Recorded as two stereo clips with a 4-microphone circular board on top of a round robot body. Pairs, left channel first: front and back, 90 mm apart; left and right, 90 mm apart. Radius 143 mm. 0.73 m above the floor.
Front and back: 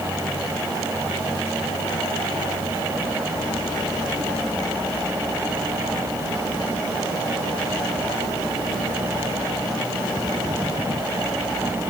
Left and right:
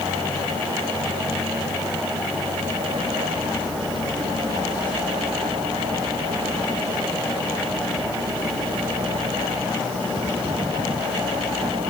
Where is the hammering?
I don't hear hammering.